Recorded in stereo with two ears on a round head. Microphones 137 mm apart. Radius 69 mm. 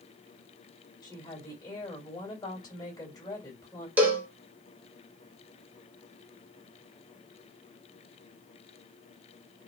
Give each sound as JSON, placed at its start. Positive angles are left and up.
{"t": 1.0, "sound": "a woman speaking", "side_deg": 25, "distance_m": 2.0}
{"t": 4.0, "sound": "a cowbell", "side_deg": -10, "distance_m": 0.8}